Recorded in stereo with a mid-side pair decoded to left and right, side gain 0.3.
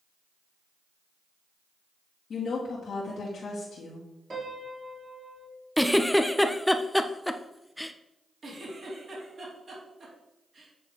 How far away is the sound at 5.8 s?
About 0.6 m.